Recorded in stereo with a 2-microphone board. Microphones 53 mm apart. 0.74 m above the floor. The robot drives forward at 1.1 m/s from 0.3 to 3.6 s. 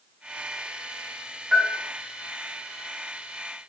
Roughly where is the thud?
No thud in this recording.